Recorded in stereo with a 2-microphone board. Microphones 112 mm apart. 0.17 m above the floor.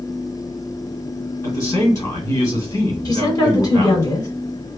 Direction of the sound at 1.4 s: 30° left (ahead or behind).